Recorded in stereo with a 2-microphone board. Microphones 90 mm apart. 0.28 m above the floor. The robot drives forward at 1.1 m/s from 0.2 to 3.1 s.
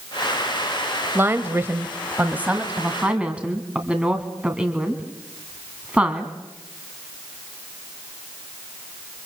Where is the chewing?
I don't hear chewing.